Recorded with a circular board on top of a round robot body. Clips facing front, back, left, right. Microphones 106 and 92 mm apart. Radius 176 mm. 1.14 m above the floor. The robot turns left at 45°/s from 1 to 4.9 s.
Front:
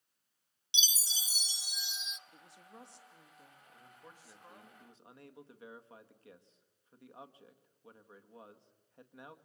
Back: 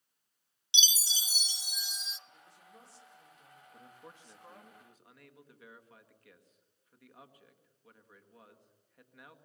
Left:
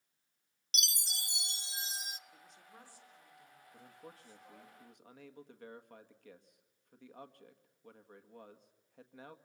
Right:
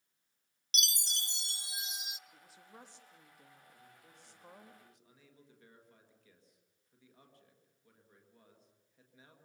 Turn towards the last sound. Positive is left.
turn(degrees=60)